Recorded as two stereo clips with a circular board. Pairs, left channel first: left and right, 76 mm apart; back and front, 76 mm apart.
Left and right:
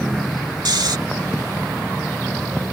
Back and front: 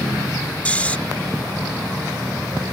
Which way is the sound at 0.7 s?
110° right.